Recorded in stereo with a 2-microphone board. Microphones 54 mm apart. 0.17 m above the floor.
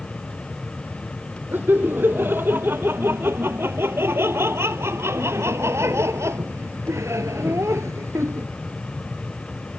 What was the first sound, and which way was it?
Laughter, 35° right (ahead or behind).